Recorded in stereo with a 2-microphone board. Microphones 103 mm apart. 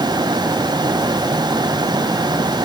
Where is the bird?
No bird in this recording.